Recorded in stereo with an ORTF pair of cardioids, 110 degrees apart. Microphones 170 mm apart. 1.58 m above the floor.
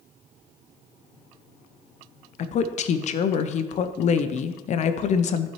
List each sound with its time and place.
2.4 s a woman speaking: 45° left, 0.7 m